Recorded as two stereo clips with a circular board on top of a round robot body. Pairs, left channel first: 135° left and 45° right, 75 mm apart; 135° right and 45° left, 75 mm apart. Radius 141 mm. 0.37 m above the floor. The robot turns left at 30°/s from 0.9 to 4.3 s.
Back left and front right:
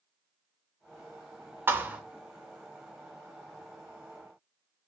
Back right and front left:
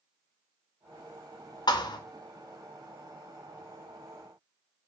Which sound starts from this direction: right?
A thud, at 1.7 s.